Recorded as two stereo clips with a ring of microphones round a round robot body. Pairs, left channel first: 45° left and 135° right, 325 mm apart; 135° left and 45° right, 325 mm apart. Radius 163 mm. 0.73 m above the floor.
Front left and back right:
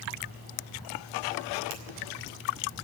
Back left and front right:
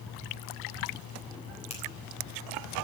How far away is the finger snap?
About 3.5 m.